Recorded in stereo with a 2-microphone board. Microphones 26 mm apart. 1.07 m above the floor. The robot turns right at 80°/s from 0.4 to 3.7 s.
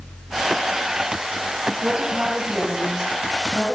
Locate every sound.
1.8 s a woman speaking: 130° right, 6 m; by 3.8 s 25° left, 6 m